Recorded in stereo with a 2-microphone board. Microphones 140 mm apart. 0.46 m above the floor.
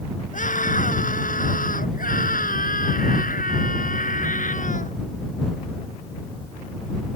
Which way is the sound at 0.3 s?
65° left (ahead or behind).